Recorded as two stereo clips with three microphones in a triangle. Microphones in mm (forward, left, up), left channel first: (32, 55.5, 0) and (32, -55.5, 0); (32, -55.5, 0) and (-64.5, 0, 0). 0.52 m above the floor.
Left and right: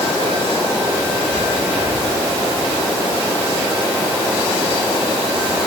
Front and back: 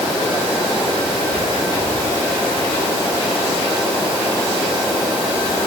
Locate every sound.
Only background noise.